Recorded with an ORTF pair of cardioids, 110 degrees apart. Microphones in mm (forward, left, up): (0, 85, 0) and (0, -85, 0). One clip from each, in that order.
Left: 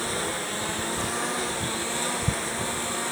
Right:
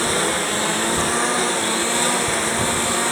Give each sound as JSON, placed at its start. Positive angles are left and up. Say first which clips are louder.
{"t": 0.0, "sound": "a lawn mower", "louder": "right 9 dB", "azimuth_deg": -50}